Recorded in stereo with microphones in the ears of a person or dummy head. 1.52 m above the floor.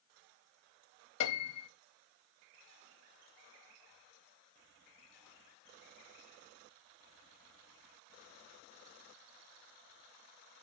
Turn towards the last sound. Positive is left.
turn(degrees=80)